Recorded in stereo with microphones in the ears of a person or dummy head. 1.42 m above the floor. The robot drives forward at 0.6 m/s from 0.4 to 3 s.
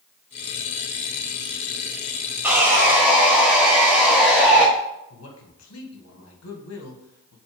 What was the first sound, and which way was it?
Sawing, 10° right (ahead or behind).